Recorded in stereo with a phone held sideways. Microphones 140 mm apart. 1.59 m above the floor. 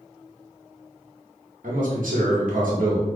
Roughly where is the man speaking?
Right.